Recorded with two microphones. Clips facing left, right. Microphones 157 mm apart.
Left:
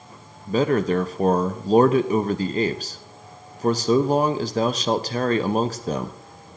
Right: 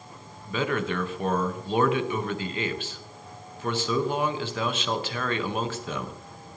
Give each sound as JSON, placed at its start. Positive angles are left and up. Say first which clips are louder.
{"t": 0.5, "sound": "a man speaking", "louder": "left 8 dB", "side_deg": 40, "distance_m": 0.6}